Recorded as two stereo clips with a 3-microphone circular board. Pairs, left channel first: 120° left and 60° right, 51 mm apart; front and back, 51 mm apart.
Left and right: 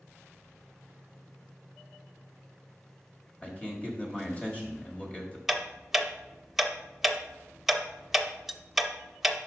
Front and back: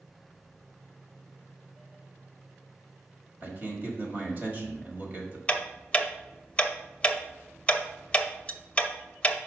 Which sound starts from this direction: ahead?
Ticking, at 5.5 s.